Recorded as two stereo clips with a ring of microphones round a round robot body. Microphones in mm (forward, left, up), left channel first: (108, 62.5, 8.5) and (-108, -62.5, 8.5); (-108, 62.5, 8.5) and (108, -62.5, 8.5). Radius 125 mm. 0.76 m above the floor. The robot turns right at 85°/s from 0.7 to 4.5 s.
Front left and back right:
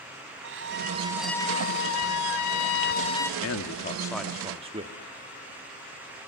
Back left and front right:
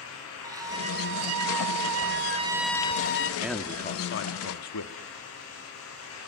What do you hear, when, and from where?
0.4 s a violin: 105° right, 2.5 m; by 3.3 s 115° left, 2.5 m
3.4 s a man speaking: 50° left, 1.6 m; by 5.0 s 145° left, 1.6 m